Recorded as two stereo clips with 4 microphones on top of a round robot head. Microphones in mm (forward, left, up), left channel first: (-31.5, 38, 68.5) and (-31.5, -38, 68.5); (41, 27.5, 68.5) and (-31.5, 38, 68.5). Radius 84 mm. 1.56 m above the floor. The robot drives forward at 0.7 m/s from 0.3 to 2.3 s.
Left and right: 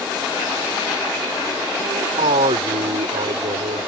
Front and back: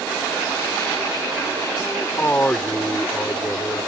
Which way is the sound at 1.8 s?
80° right.